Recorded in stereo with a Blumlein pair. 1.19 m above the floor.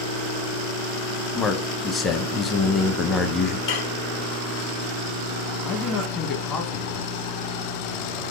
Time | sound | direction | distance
1.4 | a man speaking | 15° left | 0.7 m
3.7 | dishes clattering | 55° left | 1.0 m
5.7 | a man speaking | 25° left | 1.0 m